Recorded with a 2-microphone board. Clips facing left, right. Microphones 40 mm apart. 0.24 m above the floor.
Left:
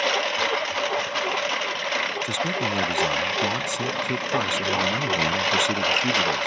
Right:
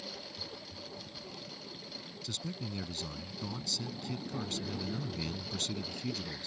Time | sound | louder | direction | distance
0.0 | a lawn mower | left 23 dB | 70° left (ahead or behind) | ?
2.2 | a man speaking | left 17 dB | 55° left (ahead or behind) | ?